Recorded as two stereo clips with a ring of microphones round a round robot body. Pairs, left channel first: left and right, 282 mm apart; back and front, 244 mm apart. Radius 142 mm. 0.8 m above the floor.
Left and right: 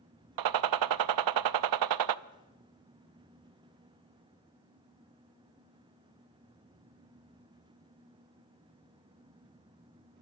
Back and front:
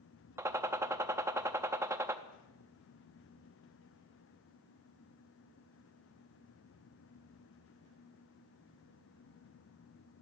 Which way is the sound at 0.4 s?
80° right.